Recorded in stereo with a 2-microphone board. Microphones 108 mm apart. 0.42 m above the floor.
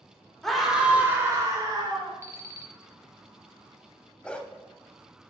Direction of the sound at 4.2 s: 10° left (ahead or behind).